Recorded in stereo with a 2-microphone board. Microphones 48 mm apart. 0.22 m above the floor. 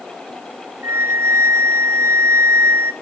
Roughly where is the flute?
Right.